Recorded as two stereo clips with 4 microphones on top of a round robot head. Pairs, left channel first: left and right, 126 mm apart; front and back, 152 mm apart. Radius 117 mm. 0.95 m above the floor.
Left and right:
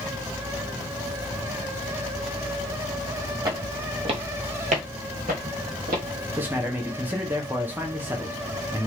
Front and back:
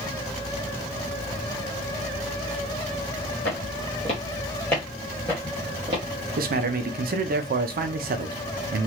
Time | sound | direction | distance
3.5 | footsteps | 35° right | 1.5 m
6.4 | a man speaking | 165° right | 0.5 m